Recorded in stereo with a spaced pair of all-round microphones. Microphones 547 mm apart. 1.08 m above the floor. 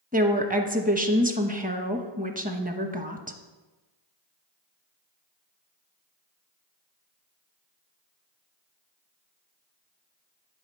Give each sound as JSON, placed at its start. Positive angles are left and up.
{"t": 0.1, "sound": "a woman speaking", "side_deg": -15, "distance_m": 0.9}